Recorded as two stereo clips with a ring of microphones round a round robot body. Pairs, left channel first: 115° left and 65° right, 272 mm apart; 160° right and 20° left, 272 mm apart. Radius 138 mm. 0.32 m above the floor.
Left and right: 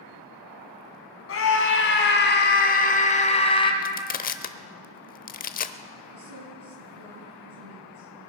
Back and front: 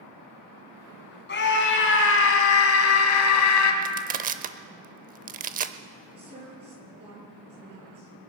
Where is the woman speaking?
45° right, 7 m.